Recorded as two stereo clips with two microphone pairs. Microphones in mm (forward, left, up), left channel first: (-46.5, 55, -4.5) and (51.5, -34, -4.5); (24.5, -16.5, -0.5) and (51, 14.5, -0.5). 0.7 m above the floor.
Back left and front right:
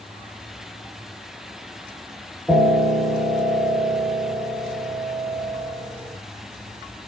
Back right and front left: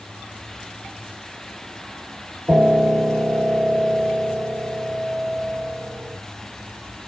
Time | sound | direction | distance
2.5 | a piano | 35° left | 0.8 m